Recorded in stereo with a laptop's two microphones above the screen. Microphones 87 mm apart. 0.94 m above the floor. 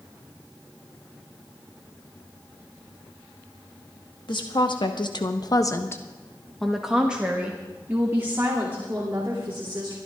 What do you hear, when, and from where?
4.3 s a woman speaking: 65° left (ahead or behind), 1.7 m; by 10.0 s 30° right (ahead or behind), 4 m